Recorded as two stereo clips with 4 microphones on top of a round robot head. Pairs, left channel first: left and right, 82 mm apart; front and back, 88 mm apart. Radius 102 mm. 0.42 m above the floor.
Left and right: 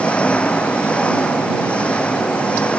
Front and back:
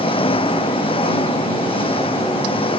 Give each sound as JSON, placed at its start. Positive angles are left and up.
{"t": 0.0, "sound": "an engine running", "azimuth_deg": 15}